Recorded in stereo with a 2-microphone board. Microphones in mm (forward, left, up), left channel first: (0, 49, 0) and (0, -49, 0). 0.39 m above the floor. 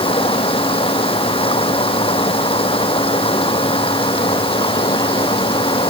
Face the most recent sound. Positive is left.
turn(degrees=70)  # may be behind; listen again after turning